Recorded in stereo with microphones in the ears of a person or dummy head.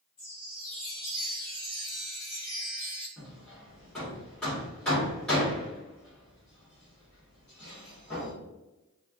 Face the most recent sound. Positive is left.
turn(degrees=5)  # may be behind; listen again after turning